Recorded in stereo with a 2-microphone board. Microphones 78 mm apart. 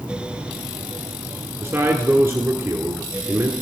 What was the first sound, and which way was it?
A man speaking, 35° right (ahead or behind).